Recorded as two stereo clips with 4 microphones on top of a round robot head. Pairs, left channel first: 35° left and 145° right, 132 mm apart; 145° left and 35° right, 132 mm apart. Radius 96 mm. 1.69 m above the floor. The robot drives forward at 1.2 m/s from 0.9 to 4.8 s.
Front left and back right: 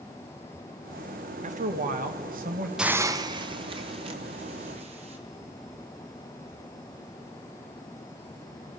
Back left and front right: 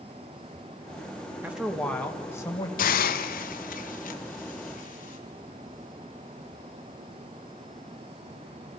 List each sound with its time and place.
1.4 s a man speaking: 110° right, 1.3 m; by 2.7 s 150° right, 2.5 m
2.8 s a hiss: 130° left, 0.6 m; by 5.2 s 170° left, 3 m